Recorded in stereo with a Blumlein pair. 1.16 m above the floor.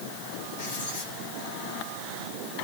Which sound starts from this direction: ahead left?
Writing, at 0.6 s.